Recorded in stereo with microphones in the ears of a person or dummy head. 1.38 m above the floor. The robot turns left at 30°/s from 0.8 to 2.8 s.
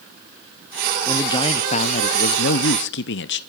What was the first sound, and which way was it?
A man speaking, 160° left.